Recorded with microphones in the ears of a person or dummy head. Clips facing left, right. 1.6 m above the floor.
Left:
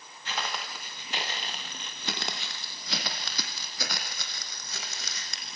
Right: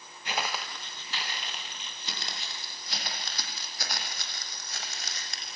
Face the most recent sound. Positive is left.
turn(degrees=65)  # may be behind; listen again after turning